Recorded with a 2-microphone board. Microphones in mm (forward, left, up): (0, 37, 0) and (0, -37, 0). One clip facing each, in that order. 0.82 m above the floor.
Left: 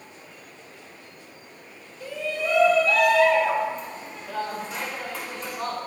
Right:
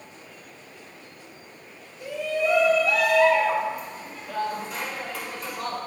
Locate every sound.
2.0 s a shout: 20° right (ahead or behind), 4 m; by 5.8 s centre (ahead or behind), 7 m